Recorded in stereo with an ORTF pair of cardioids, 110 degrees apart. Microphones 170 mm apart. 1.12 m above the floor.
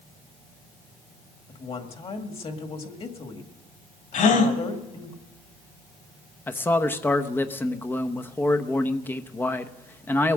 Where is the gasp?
50° left, 3.5 m.